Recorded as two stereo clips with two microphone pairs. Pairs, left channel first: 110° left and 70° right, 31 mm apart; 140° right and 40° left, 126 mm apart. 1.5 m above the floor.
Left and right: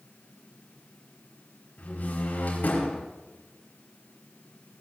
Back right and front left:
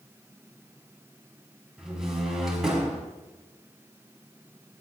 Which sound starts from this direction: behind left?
A door slam, at 1.8 s.